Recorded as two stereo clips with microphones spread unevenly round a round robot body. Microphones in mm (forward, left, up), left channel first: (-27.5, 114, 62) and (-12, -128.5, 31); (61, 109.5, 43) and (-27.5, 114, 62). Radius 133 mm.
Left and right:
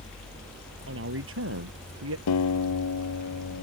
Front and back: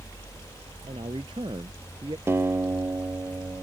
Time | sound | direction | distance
0.9 | a man speaking | 125° right | ?
2.3 | a guitar | 115° left | ?